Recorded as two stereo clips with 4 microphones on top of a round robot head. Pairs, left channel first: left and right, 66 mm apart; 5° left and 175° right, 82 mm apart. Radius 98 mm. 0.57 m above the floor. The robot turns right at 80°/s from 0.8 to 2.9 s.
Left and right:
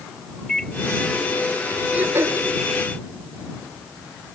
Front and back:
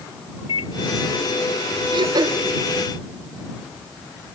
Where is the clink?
No clink in this recording.